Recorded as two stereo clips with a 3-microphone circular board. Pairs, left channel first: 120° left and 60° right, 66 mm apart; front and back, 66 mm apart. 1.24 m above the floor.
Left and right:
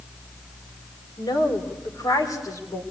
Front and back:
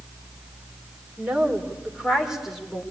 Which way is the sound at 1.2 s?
110° left.